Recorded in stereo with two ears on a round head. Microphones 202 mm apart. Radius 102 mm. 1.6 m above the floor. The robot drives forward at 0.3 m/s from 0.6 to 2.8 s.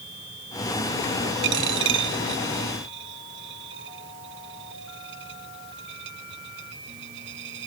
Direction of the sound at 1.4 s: 60° right (ahead or behind).